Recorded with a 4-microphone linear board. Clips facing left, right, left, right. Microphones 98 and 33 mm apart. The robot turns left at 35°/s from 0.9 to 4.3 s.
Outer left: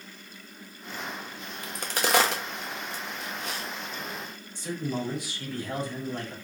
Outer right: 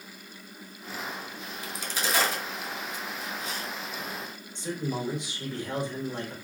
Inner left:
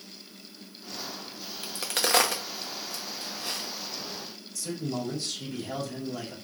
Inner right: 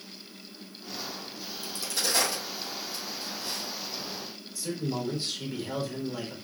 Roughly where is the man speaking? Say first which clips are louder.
Even, inner right 1 dB; right.